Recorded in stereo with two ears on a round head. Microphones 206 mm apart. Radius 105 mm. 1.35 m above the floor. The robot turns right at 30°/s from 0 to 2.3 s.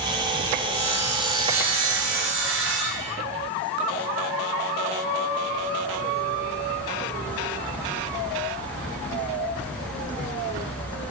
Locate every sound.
0.7 s sawing: 100° right, 1.2 m; by 3.2 s 55° right, 1.2 m